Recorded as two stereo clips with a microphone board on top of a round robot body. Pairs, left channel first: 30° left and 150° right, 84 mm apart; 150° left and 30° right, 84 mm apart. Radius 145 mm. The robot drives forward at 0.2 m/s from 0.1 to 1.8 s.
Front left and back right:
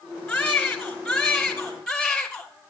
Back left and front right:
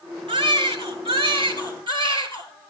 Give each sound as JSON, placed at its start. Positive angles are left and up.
{"t": 0.3, "sound": "a baby crying", "azimuth_deg": -55, "distance_m": 2.0}